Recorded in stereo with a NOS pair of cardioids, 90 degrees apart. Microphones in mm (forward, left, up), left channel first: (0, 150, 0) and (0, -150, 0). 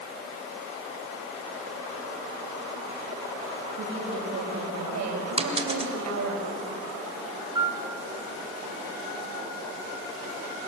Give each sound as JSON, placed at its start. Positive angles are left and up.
{"t": 3.8, "sound": "a woman speaking", "azimuth_deg": -65, "distance_m": 6.0}
{"t": 5.4, "sound": "a dropped coin", "azimuth_deg": -20, "distance_m": 3.0}
{"t": 7.5, "sound": "a piano", "azimuth_deg": -15, "distance_m": 3.5}